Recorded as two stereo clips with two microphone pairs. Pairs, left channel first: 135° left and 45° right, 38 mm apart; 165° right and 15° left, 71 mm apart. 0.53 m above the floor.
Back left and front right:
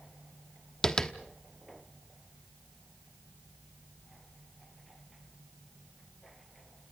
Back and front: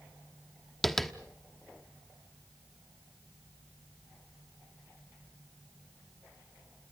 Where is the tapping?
115° left, 1.1 m.